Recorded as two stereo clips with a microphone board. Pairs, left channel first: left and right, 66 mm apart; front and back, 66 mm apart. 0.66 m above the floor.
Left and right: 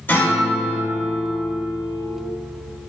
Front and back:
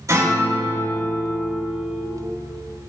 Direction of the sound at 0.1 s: 150° left.